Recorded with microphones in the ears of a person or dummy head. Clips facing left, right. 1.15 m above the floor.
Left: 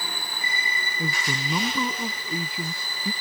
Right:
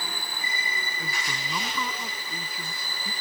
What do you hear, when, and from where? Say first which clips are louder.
1.0 s a man speaking: left 10 dB; 20° left (ahead or behind)